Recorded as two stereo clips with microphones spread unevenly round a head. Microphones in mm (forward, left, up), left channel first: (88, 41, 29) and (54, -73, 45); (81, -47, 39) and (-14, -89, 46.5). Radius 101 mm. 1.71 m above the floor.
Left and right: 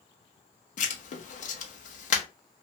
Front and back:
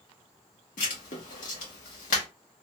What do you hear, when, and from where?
0.8 s writing: 55° left, 0.7 m